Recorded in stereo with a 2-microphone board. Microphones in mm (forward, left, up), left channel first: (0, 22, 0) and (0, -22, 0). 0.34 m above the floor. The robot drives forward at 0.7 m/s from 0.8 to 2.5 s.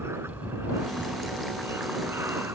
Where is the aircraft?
70° right (ahead or behind).